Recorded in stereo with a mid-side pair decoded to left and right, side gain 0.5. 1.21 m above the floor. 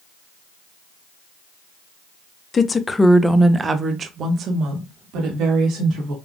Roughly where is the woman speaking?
Ahead left.